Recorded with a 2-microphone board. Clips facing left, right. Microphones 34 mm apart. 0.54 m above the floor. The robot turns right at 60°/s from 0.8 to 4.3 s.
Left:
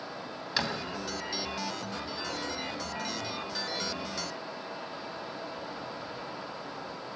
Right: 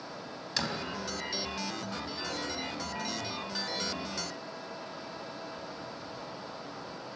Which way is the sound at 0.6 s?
20° left (ahead or behind).